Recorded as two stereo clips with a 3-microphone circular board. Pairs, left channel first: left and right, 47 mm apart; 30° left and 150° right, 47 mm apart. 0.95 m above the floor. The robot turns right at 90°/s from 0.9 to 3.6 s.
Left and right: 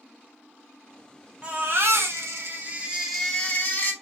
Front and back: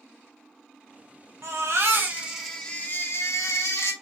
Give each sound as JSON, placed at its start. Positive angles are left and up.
{"t": 1.4, "sound": "a baby crying", "azimuth_deg": -150, "distance_m": 0.8}